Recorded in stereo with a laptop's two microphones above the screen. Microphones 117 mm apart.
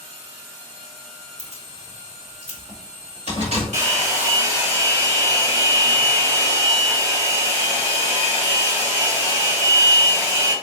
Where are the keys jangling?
60° right (ahead or behind), 1.3 m; by 3.6 s 70° right (ahead or behind), 3 m.